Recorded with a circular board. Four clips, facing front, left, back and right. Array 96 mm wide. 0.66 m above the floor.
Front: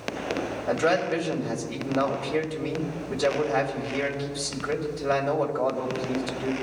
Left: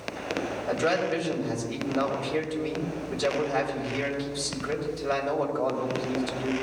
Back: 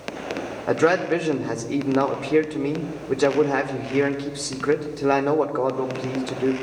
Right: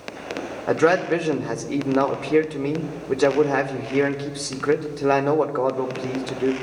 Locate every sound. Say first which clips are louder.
0.7 s a man speaking: right 8 dB, back 5 dB; 130° right, 1.5 m